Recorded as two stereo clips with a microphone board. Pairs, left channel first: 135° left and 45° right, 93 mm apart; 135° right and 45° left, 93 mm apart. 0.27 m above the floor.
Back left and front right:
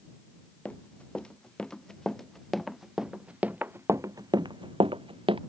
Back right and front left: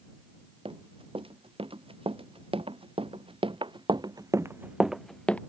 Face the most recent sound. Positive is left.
turn(degrees=-60)